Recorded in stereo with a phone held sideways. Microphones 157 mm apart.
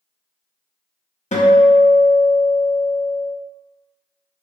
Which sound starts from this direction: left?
A guitar, at 1.3 s.